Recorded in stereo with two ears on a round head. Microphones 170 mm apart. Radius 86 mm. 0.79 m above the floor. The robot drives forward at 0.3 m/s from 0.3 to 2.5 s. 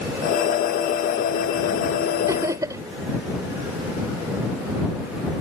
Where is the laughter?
20° right (ahead or behind).